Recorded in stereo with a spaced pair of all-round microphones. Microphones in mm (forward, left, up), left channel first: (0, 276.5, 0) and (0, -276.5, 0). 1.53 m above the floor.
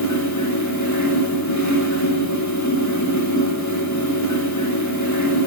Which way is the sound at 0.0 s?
30° left (ahead or behind).